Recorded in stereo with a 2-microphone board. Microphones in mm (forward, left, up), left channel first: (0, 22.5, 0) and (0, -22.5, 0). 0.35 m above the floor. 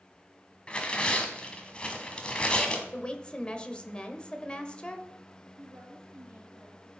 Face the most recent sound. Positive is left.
turn(degrees=-70)  # may be behind; listen again after turning